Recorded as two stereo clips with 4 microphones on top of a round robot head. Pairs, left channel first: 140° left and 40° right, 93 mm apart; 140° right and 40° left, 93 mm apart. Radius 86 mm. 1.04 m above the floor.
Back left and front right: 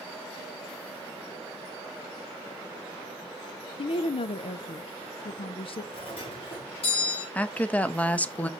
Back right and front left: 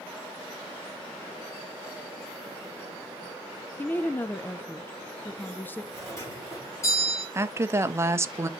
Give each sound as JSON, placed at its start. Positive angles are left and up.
{"t": 3.8, "sound": "a woman speaking", "azimuth_deg": 150, "distance_m": 0.5}
{"t": 5.9, "sound": "a doorbell", "azimuth_deg": 160, "distance_m": 5.0}
{"t": 7.3, "sound": "a woman speaking", "azimuth_deg": 75, "distance_m": 0.8}